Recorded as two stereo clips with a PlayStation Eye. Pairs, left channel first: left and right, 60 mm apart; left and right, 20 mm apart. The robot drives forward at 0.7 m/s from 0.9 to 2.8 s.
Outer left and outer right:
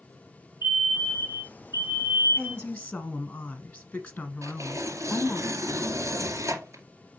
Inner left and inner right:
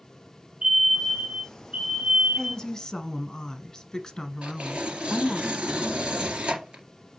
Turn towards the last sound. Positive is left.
turn(degrees=-50)  # may be behind; listen again after turning